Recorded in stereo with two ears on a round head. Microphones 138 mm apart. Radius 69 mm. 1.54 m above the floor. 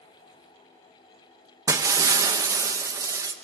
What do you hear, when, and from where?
1.7 s breaking glass: 20° right (ahead or behind), 0.8 m